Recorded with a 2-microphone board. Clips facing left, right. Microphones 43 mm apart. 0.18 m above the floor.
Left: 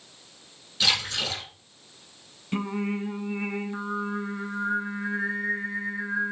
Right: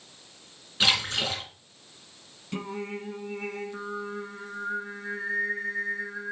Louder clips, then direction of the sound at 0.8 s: Right 1 dB; 30° right (ahead or behind).